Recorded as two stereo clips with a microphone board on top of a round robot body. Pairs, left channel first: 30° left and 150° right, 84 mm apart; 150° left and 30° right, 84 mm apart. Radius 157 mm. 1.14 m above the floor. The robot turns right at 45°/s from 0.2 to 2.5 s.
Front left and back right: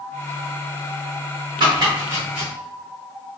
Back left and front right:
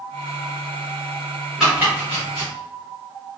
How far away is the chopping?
About 1.0 m.